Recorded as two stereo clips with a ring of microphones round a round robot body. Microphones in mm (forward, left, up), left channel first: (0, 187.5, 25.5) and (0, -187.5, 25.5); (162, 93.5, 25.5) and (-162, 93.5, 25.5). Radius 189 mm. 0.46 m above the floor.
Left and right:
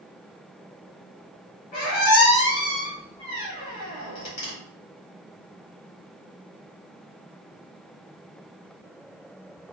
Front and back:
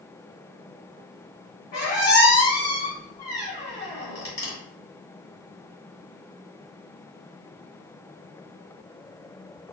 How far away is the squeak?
About 1.7 m.